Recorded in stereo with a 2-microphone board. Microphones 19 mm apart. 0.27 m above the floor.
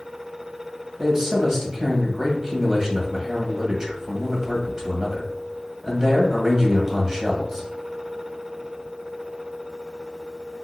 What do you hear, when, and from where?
1.0 s a man speaking: 25° right (ahead or behind), 1.4 m